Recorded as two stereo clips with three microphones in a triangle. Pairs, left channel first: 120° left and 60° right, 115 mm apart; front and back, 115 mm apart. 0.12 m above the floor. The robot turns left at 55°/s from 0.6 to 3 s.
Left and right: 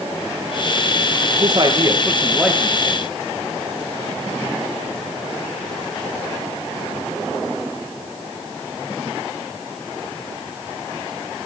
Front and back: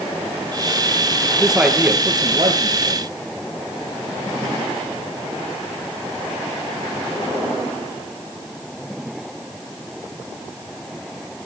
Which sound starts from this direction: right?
A man speaking, at 1.4 s.